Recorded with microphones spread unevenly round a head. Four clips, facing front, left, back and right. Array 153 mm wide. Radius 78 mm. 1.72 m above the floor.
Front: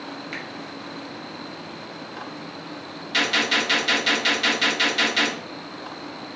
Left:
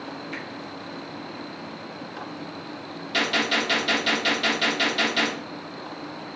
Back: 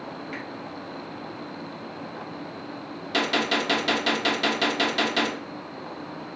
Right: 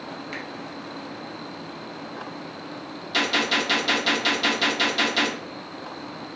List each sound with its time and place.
0.3 s a finger snap: 35° right, 1.4 m
3.1 s a gunshot: 170° right, 0.6 m